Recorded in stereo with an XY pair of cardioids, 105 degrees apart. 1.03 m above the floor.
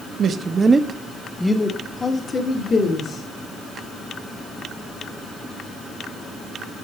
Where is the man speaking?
55° right, 0.7 m; by 3.2 s 45° left, 1.5 m.